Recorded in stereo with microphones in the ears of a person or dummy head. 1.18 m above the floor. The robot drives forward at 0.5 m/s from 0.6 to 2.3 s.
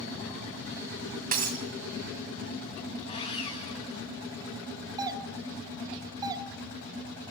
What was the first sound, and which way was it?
Breaking glass, 45° right (ahead or behind).